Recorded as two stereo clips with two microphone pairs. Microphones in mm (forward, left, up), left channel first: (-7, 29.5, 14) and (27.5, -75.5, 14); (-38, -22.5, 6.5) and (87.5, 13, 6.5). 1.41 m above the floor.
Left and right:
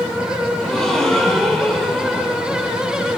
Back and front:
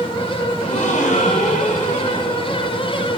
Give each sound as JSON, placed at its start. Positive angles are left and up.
{"t": 0.6, "sound": "a gasp", "azimuth_deg": -165, "distance_m": 7.0}